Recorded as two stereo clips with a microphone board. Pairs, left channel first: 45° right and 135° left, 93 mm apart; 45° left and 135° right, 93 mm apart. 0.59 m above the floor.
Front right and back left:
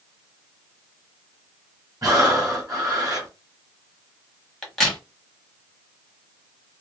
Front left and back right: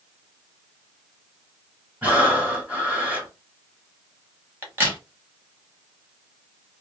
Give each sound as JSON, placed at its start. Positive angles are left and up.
{"t": 2.0, "sound": "breathing", "azimuth_deg": 160, "distance_m": 1.6}
{"t": 4.6, "sound": "a crack", "azimuth_deg": -130, "distance_m": 1.1}